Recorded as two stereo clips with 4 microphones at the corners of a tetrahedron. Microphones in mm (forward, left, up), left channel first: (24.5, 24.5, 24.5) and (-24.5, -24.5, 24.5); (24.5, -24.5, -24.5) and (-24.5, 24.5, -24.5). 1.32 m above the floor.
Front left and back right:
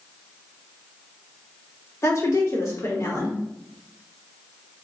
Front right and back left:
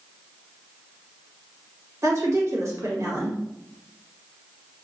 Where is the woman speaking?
90° left, 1.3 m.